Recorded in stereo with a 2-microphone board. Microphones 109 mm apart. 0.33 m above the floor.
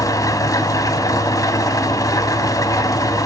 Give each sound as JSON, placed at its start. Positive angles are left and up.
{"t": 0.0, "sound": "an engine running", "side_deg": 30, "distance_m": 1.8}